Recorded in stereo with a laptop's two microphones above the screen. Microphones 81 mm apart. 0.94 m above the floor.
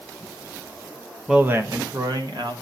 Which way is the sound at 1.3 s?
5° right (ahead or behind).